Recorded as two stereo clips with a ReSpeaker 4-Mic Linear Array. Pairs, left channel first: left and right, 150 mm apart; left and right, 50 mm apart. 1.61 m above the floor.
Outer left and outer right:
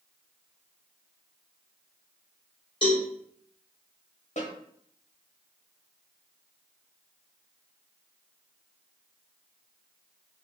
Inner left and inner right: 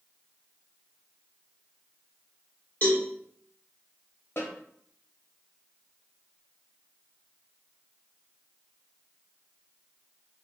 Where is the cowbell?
35° left (ahead or behind), 1.0 m.